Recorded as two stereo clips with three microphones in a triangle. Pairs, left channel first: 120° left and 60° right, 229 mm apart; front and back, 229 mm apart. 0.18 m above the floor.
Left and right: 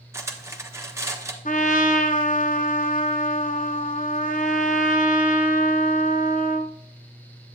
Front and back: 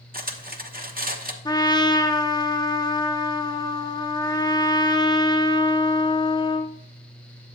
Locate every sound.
0.1 s cutlery clinking: 135° right, 1.2 m
1.4 s a trumpet: 70° left, 0.8 m